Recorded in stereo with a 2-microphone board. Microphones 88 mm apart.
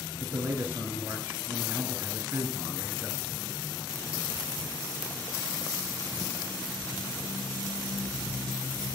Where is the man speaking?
25° right (ahead or behind), 1.8 m.